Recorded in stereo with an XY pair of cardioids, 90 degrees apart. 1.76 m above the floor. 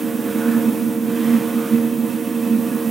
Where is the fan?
40° right, 0.9 m.